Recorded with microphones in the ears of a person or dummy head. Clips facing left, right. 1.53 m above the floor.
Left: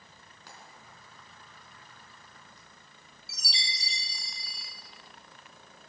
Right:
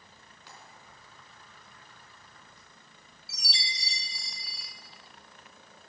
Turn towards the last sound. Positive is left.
turn(degrees=-5)  # may be behind; listen again after turning